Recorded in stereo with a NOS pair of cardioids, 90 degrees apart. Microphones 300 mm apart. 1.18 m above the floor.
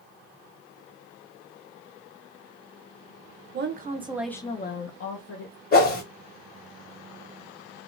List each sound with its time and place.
3.5 s a woman speaking: 40° right, 1.0 m; by 5.6 s 75° left, 1.2 m
5.7 s a whoosh: 35° left, 1.2 m